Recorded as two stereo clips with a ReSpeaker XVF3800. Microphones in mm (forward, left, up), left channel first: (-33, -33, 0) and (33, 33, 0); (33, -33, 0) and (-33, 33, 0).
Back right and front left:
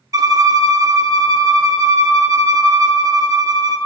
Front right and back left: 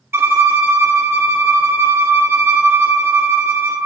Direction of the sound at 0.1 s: 80° left.